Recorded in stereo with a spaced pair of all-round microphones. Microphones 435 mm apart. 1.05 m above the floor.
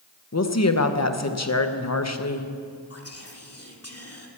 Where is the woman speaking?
35° left (ahead or behind), 1.0 m.